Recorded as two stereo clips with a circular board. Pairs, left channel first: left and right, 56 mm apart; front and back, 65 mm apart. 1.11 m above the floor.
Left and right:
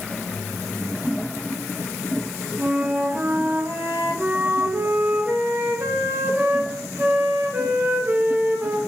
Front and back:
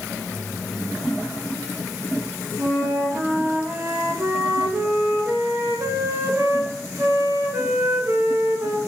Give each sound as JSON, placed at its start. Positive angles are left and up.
{"t": 2.6, "sound": "a flute", "azimuth_deg": -140, "distance_m": 1.3}